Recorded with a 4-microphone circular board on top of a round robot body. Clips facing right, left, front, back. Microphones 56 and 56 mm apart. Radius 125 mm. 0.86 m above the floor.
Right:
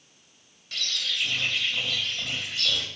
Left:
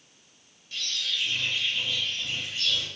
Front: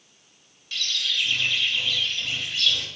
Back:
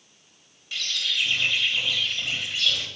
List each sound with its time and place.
0.7 s a bird: 100° right, 1.0 m